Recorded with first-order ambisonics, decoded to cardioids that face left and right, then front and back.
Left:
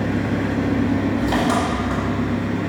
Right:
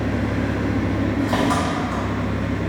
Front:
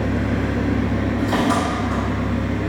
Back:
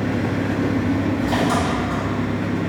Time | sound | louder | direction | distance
0.0 | an engine running | left 1 dB, even | 100° left | 1.6 m